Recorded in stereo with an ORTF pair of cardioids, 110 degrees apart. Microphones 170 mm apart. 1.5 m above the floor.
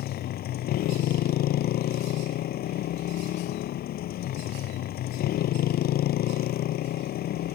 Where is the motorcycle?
65° left.